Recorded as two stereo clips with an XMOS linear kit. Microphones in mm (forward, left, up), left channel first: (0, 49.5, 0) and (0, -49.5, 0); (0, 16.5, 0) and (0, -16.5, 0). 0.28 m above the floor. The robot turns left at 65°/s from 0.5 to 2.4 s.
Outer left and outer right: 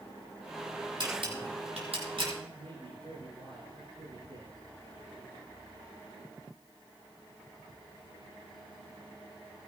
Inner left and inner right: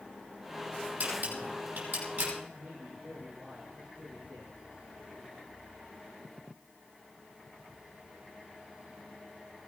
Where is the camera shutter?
45° right (ahead or behind), 9.5 m; by 2.3 s 55° right (ahead or behind), 9.5 m.